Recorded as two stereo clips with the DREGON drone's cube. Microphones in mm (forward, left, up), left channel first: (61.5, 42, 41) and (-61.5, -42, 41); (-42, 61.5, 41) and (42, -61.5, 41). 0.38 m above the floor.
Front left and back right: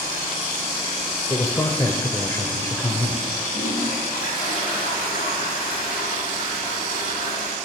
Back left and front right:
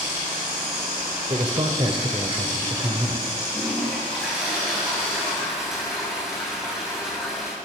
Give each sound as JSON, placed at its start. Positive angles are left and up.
{"t": 1.3, "sound": "a man speaking", "azimuth_deg": -25, "distance_m": 1.5}
{"t": 3.5, "sound": "a toilet flushing", "azimuth_deg": 30, "distance_m": 7.5}